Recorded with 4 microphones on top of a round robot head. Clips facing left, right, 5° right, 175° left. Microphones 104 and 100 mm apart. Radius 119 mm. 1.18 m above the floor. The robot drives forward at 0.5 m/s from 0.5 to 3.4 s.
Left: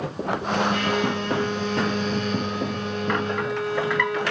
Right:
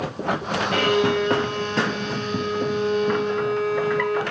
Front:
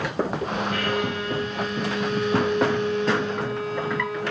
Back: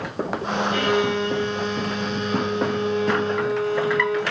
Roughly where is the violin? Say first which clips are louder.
Right 4 dB, back 5 dB; behind right.